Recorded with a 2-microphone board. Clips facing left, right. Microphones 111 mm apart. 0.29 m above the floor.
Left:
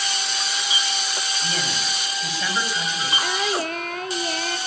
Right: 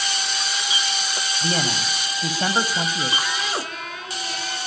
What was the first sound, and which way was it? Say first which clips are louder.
A man speaking: right 6 dB; 40° right (ahead or behind).